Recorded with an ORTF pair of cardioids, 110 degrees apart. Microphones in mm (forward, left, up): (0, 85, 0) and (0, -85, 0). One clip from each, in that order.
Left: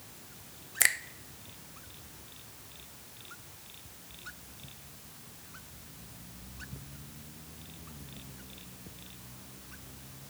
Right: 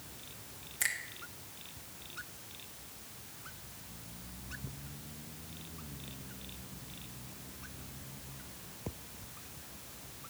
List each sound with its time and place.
0.8 s a finger snap: 55° left, 0.8 m